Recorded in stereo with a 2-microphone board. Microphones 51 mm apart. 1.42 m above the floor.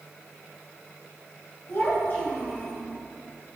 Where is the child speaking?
55° left (ahead or behind), 1.7 m; by 2.8 s 20° left (ahead or behind), 1.3 m.